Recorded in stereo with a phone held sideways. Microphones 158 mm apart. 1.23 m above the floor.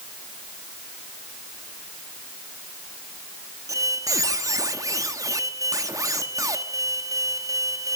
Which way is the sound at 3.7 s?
20° right (ahead or behind).